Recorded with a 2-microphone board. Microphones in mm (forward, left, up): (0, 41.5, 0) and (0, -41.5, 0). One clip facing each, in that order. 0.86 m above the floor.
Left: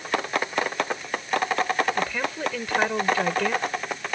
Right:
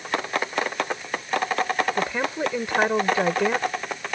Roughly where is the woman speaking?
Right.